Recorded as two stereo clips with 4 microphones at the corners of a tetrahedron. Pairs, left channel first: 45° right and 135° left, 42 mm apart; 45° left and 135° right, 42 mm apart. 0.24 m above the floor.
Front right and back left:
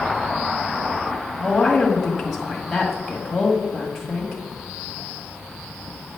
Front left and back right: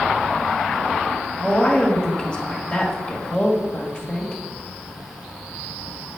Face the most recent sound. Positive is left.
turn(degrees=45)